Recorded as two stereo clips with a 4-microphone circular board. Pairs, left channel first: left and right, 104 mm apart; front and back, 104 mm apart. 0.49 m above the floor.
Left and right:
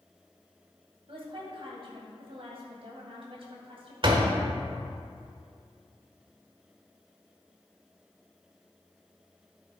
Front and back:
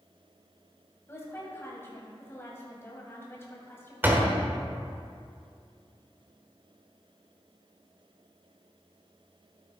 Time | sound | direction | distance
1.1 | a woman speaking | 65° right | 2.5 m
4.0 | a door slam | 115° right | 1.3 m